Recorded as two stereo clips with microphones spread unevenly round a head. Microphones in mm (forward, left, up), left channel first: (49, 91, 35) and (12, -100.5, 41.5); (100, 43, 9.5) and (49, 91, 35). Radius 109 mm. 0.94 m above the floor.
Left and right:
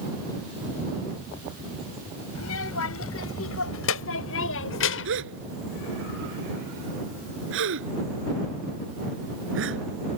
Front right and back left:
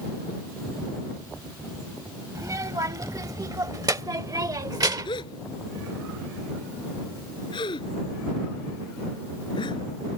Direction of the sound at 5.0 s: 80° right.